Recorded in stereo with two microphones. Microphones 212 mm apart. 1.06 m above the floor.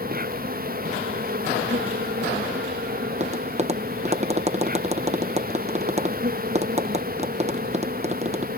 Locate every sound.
0.0 s an insect: 40° right (ahead or behind)
3.1 s tapping: 30° right (ahead or behind)